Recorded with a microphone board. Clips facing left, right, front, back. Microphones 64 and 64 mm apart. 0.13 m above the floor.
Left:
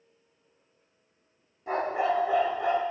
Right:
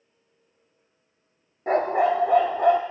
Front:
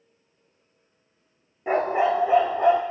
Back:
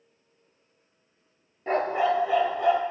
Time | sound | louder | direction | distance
1.7 | a dog barking | right 6 dB, front 2 dB | 80° right | 0.8 m